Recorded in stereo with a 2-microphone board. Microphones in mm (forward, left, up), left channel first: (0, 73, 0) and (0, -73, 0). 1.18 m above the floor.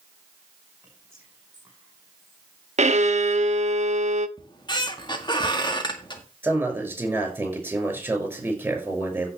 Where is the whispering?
20° right (ahead or behind), 5 m.